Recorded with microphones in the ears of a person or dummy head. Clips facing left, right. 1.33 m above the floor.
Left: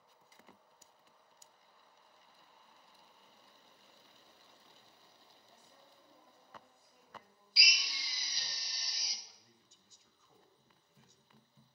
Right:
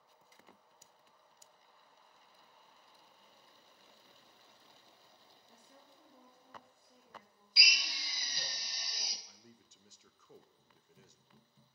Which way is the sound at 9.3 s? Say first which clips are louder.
Right 6 dB; 45° right (ahead or behind).